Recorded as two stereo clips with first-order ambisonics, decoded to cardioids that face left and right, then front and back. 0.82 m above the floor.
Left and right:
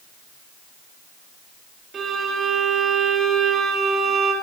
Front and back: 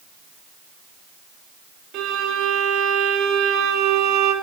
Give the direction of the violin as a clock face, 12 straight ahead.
5 o'clock.